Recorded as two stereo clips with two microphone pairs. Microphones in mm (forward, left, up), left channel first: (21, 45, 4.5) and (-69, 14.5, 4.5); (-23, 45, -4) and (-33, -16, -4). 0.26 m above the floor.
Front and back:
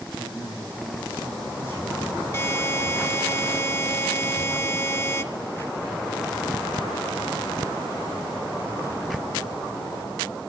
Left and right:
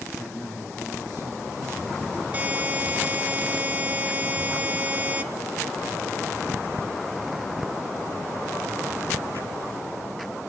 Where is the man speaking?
75° left, 9.5 m.